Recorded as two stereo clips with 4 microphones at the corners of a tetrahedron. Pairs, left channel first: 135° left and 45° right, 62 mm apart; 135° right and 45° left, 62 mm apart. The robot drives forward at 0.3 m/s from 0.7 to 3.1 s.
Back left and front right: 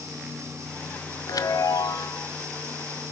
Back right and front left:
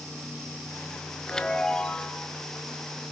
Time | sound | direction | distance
1.3 | a chime | 145° left | 1.1 m